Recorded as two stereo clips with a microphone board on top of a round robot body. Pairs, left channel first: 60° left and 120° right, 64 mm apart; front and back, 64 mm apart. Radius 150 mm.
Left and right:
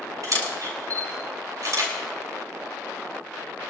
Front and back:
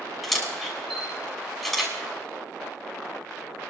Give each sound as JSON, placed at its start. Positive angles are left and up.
{"t": 0.2, "sound": "a camera shutter", "azimuth_deg": -95, "distance_m": 6.0}